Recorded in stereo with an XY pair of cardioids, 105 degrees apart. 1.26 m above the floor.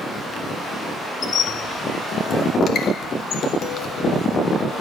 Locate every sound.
1.2 s a squeak: 60° left, 0.6 m